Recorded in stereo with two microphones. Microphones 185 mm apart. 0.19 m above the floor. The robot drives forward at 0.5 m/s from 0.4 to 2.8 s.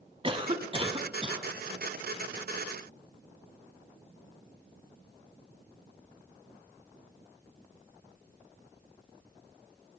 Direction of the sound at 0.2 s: 30° right (ahead or behind).